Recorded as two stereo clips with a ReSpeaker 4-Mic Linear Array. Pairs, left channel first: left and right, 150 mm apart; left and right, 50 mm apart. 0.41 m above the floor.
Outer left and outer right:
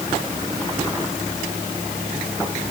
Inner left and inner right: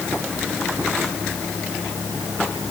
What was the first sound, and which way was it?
Only background noise.